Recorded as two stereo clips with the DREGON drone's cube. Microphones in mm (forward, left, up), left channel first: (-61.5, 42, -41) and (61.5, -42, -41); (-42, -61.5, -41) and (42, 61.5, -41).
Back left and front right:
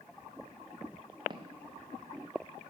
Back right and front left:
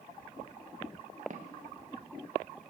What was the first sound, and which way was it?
Footsteps, 25° left.